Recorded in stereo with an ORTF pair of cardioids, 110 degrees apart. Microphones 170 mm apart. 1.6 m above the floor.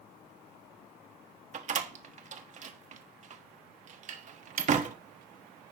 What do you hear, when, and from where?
1.5 s a door slam: 45° right, 1.1 m